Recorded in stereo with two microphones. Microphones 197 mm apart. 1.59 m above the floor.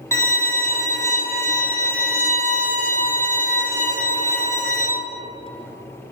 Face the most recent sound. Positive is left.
turn(degrees=15)  # may be behind; listen again after turning